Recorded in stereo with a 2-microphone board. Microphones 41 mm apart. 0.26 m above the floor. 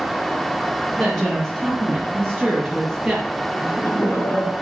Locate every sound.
1.0 s a woman speaking: 5° left (ahead or behind), 6.5 m
3.5 s laughter: 60° left (ahead or behind), 6 m